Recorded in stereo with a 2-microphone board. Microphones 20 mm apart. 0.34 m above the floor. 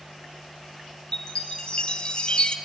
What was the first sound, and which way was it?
A chime, 40° left (ahead or behind).